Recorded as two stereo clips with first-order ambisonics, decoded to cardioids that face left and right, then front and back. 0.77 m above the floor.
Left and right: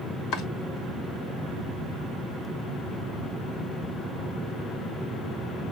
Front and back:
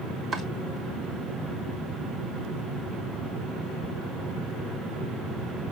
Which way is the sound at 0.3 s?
120° left.